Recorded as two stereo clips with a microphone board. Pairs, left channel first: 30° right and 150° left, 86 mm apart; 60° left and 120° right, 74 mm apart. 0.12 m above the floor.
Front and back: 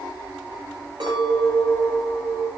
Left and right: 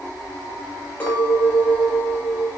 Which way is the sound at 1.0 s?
125° left.